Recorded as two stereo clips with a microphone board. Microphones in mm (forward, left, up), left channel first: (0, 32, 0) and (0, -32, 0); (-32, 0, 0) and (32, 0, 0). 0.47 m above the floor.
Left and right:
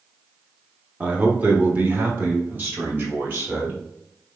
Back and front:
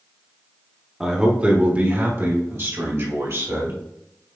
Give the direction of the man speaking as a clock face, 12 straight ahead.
2 o'clock.